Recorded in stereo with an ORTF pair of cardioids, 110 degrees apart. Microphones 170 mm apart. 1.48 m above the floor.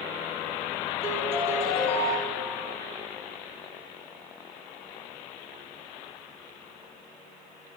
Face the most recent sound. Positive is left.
turn(degrees=-15)